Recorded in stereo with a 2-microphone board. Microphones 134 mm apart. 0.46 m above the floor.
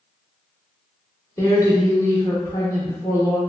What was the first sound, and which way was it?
A woman speaking, 25° left (ahead or behind).